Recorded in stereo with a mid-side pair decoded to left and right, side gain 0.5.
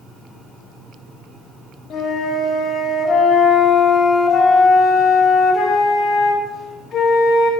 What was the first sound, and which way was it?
A flute, 55° left.